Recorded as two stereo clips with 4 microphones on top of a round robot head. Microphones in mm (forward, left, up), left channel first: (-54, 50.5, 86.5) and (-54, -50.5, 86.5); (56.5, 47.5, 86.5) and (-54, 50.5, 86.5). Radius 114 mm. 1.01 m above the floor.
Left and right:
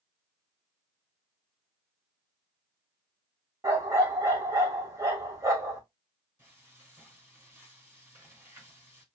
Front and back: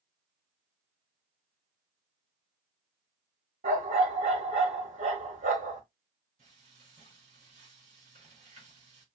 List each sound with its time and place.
3.6 s a dog barking: 150° right, 1.6 m
6.4 s frying: 155° right, 4.5 m